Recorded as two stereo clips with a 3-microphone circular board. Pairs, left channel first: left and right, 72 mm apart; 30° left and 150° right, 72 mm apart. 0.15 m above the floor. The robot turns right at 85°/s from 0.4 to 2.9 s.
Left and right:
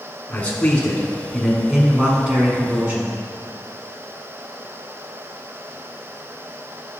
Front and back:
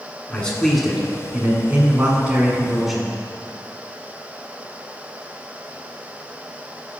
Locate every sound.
0.3 s a man speaking: 80° left, 1.2 m; by 3.1 s 65° right, 1.2 m